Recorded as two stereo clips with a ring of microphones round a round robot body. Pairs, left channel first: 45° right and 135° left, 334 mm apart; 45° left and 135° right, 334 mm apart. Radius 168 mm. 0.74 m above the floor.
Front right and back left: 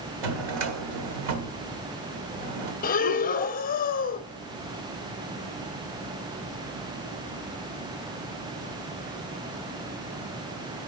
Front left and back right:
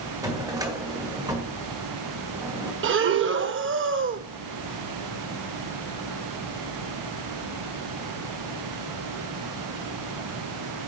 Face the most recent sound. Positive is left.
turn(degrees=-100)